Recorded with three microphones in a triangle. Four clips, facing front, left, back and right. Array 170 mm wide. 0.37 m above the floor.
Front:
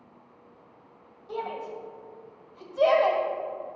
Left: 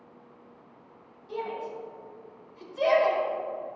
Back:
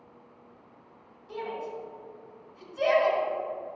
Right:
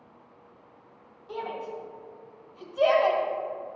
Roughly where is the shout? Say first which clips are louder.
Even, front 2 dB; ahead right.